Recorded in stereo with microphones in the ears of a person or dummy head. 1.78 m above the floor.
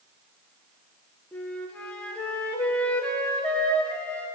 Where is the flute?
5° left (ahead or behind), 1.7 m.